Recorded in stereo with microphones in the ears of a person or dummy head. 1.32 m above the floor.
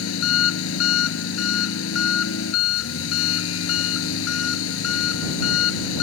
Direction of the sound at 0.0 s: 90° left.